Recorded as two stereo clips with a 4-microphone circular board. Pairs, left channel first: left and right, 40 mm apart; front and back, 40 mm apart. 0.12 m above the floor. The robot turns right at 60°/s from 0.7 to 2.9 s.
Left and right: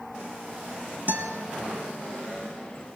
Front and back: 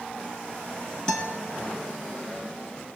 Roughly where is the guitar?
Right.